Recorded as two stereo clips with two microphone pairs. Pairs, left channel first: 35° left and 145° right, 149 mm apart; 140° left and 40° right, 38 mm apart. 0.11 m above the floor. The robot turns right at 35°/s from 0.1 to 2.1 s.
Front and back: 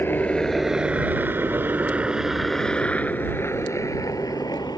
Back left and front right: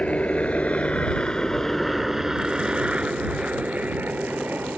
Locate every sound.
0.0 s a helicopter: 105° left; by 4.8 s 25° right